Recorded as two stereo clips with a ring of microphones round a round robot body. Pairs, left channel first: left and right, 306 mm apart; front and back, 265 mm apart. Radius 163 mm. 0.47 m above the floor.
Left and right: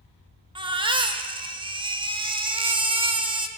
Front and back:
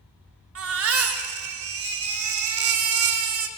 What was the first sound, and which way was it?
A baby crying, 160° right.